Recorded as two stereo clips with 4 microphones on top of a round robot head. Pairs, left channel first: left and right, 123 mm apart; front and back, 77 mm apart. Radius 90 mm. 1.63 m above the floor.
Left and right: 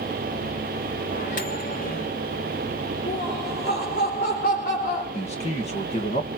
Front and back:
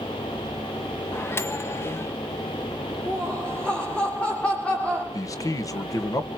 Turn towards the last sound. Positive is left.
turn(degrees=40)